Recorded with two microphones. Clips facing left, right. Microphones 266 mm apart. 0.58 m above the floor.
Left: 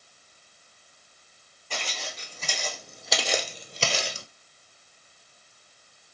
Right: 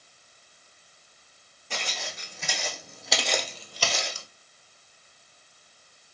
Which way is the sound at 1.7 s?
20° right (ahead or behind).